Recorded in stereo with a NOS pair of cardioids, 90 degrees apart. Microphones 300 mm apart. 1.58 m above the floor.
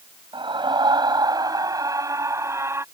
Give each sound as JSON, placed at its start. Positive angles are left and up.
{"t": 0.3, "sound": "a scream", "azimuth_deg": -15}